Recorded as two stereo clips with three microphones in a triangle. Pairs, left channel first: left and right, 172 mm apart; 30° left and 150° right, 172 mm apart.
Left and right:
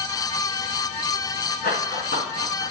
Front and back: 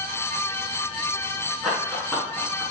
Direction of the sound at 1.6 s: 120° left.